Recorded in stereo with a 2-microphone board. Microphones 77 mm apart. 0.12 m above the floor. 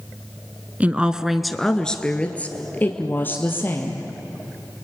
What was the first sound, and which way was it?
A woman speaking, 20° right (ahead or behind).